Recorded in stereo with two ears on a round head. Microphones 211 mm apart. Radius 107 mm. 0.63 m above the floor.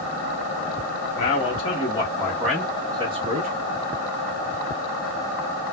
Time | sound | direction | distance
1.2 | a man speaking | 35° left (ahead or behind) | 1.4 m